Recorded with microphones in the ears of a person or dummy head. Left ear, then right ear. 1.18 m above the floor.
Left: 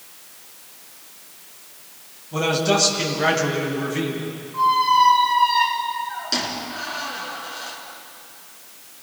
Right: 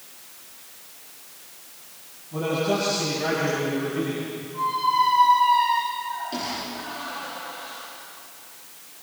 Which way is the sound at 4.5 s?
60° left (ahead or behind).